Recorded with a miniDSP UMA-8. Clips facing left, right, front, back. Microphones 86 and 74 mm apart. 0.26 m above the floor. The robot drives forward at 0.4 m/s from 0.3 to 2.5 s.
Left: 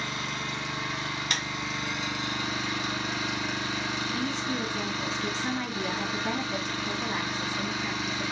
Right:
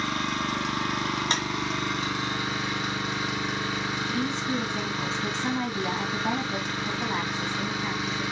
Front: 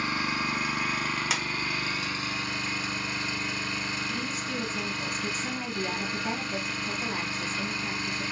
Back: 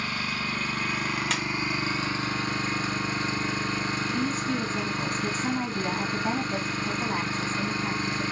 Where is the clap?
80° right, 1.2 m; by 1.4 s 85° right, 1.2 m.